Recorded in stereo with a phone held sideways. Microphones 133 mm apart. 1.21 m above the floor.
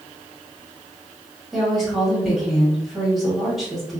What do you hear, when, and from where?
1.5 s a woman speaking: centre (ahead or behind), 1.8 m